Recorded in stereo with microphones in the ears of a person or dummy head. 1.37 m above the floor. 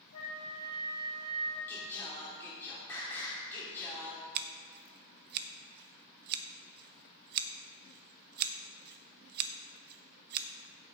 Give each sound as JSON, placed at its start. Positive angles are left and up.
{"t": 0.1, "sound": "a flute", "side_deg": 90, "distance_m": 3.0}
{"t": 1.7, "sound": "singing", "side_deg": 15, "distance_m": 1.6}
{"t": 4.3, "sound": "scissors", "side_deg": -55, "distance_m": 0.6}